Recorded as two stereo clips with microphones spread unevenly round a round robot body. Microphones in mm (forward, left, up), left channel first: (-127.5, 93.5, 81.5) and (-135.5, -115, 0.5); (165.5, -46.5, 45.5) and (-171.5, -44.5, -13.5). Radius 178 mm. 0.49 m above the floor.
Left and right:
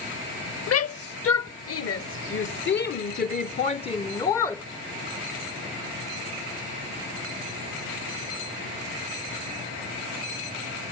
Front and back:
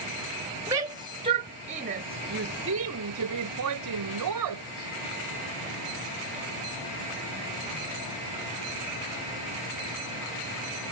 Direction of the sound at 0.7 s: 100° left.